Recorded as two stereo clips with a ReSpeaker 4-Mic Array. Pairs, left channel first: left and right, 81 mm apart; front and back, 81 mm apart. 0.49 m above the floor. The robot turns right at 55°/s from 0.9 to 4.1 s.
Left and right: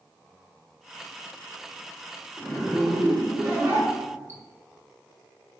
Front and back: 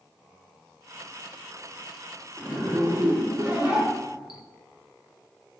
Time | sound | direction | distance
2.4 | a zipper | 160° left | 1.0 m